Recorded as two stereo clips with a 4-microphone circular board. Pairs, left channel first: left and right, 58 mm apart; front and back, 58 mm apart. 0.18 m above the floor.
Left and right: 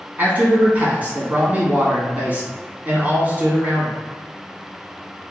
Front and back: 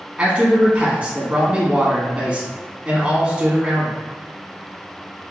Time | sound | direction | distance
0.2 | a man speaking | 125° right | 1.3 m